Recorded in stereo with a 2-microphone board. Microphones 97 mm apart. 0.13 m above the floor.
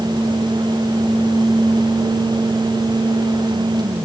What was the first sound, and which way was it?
Only background noise.